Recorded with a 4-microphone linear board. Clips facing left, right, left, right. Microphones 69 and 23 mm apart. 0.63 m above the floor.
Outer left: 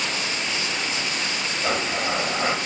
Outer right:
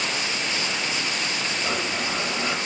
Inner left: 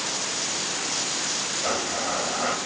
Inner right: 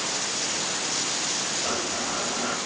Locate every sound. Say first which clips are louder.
1.6 s a blender: outer left 5 dB, inner left 2 dB; 35° left (ahead or behind), 1.0 m